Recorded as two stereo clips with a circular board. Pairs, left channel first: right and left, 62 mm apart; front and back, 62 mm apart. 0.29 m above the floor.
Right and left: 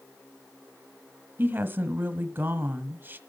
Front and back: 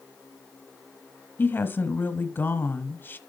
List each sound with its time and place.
1.4 s a woman speaking: 45° left, 1.5 m